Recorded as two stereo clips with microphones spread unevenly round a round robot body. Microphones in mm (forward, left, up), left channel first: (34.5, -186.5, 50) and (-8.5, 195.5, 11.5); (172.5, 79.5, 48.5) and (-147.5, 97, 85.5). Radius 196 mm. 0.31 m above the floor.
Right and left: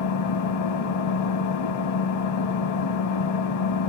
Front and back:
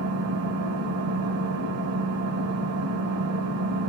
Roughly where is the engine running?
Behind right.